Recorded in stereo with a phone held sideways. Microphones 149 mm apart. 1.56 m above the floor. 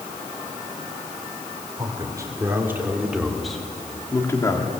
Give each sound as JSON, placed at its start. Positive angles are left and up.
{"t": 1.8, "sound": "a man speaking", "side_deg": -25, "distance_m": 4.0}